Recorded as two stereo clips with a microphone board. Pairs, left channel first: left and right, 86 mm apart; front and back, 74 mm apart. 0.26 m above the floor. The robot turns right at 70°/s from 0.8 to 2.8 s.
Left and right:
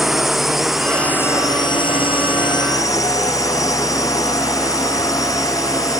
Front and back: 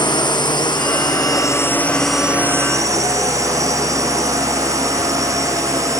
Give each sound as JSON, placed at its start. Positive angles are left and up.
{"t": 0.0, "sound": "a drone", "azimuth_deg": 0}